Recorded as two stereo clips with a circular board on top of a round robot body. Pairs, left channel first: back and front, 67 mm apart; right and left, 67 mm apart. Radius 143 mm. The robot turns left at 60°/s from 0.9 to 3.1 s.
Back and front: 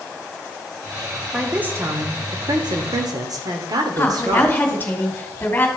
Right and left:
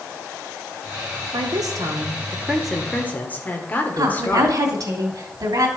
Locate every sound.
1.3 s a woman speaking: 85° left, 2 m; by 4.6 s 25° right, 2 m
4.0 s a woman speaking: 115° left, 2.5 m